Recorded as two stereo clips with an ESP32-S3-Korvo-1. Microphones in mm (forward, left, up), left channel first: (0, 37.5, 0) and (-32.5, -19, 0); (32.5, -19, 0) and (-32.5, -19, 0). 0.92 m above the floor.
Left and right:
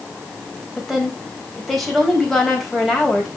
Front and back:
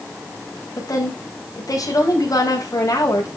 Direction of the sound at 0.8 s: 25° right.